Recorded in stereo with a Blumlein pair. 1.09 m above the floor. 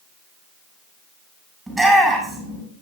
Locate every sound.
1.7 s a shout: 5° right, 7 m